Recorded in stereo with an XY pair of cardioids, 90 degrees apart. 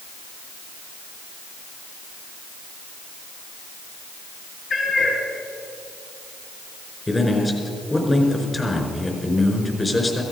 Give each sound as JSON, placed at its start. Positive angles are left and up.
{"t": 4.7, "sound": "a cat meowing", "azimuth_deg": 55, "distance_m": 4.5}
{"t": 7.1, "sound": "a man speaking", "azimuth_deg": 20, "distance_m": 4.5}